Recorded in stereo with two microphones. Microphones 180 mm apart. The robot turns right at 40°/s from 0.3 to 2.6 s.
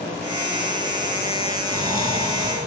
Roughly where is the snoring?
Right.